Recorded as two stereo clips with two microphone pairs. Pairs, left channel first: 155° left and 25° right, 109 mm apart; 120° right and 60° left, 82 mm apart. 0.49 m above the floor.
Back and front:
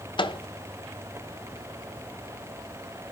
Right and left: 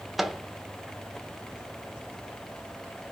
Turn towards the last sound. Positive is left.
turn(degrees=145)